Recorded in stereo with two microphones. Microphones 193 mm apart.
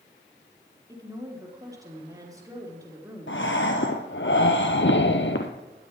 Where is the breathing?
80° left, 1.3 m.